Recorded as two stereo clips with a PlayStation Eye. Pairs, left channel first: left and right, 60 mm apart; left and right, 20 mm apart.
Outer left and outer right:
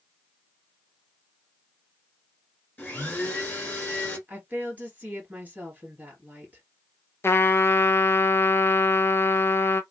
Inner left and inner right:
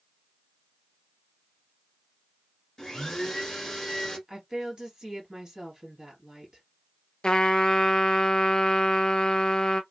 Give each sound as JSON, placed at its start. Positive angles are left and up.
{"t": 2.8, "sound": "a blender", "side_deg": 25, "distance_m": 1.3}
{"t": 4.3, "sound": "a woman speaking", "side_deg": -30, "distance_m": 2.0}
{"t": 7.2, "sound": "a trumpet", "side_deg": 45, "distance_m": 0.5}